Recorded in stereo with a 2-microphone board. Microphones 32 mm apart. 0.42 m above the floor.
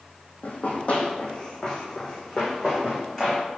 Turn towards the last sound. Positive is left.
turn(degrees=5)  # may be behind; listen again after turning